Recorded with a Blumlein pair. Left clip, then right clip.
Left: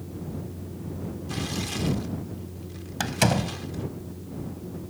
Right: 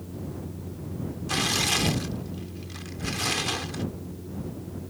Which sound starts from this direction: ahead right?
Tearing paper, at 1.3 s.